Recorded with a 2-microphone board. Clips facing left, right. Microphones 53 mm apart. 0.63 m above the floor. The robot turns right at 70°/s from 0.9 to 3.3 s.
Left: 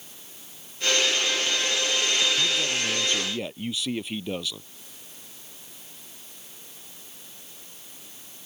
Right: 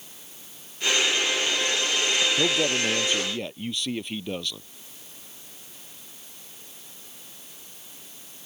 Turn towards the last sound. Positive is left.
turn(degrees=0)